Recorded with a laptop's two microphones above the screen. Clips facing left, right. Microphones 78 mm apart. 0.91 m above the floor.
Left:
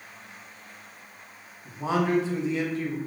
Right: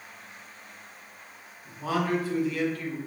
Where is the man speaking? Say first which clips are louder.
Left 2 dB; 25° left (ahead or behind), 0.8 m.